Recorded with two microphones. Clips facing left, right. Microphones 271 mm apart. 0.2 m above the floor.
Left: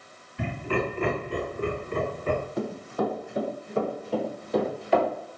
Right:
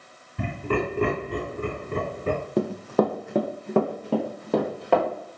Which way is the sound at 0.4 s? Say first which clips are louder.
Right 2 dB; 50° right (ahead or behind).